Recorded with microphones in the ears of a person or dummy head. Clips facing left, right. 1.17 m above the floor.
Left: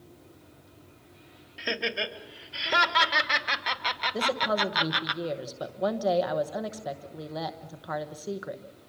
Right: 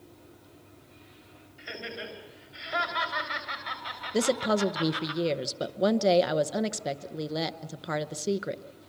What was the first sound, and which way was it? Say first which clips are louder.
Laughter: left 7 dB; 80° left.